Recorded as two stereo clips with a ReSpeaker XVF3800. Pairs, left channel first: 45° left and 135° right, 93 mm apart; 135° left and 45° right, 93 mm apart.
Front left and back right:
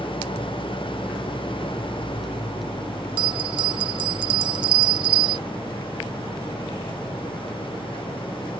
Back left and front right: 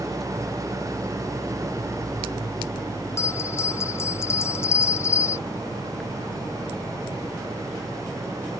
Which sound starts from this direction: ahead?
An engine running, at 0.0 s.